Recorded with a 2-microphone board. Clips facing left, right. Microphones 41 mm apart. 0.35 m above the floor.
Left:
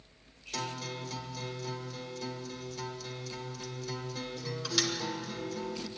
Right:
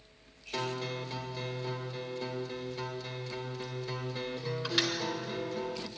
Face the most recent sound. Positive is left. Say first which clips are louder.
# right 3 dB
turn(degrees=-25)  # may be behind; listen again after turning